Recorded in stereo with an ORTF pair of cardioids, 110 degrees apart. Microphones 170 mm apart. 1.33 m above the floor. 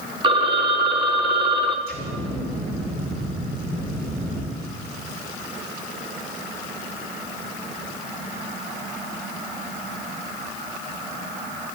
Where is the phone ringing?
30° right, 1.0 m.